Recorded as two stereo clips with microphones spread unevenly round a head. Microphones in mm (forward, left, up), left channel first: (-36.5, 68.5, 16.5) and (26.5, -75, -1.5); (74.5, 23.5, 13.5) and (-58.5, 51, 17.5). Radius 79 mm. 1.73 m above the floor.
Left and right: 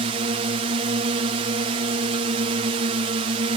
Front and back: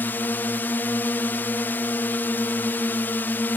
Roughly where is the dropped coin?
No dropped coin in this recording.